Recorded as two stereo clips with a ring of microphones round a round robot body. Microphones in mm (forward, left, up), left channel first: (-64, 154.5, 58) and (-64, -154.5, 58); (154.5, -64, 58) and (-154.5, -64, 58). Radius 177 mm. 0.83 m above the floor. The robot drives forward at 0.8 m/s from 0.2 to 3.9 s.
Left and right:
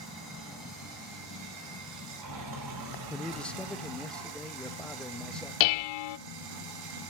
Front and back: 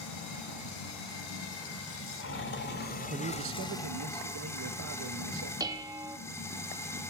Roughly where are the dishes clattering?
Left.